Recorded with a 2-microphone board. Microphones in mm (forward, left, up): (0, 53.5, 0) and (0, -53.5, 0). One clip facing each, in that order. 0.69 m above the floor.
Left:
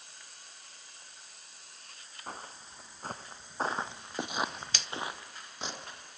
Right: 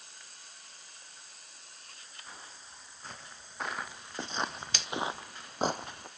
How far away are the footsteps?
About 3 m.